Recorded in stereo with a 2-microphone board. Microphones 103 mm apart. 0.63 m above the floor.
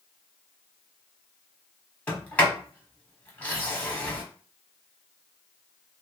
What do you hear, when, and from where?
2.1 s a sliding door: 15° left (ahead or behind), 1.2 m